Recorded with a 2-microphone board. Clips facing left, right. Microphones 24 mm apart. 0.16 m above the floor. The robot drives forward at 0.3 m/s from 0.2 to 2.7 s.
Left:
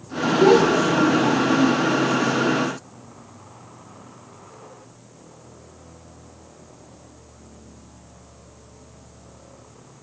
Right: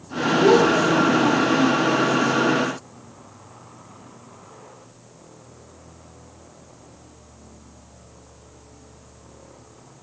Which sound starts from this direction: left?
A child speaking, at 0.4 s.